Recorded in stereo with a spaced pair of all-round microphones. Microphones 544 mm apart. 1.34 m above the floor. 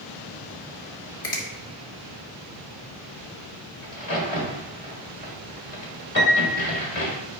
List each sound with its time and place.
1.2 s a finger snap: 80° left, 1.7 m
3.8 s a crack: 75° left (ahead or behind), 2 m
6.2 s a piano: 40° left (ahead or behind), 1.5 m